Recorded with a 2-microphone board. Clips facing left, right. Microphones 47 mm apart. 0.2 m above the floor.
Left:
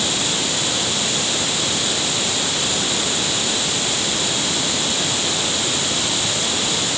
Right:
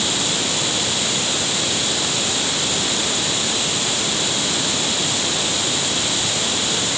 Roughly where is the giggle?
No giggle in this recording.